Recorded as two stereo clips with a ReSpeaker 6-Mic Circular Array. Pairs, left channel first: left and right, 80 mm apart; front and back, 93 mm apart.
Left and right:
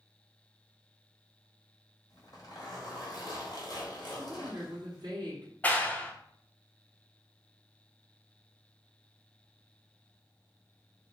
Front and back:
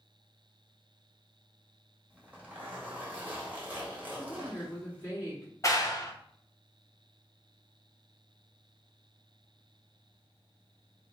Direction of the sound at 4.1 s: 60° right.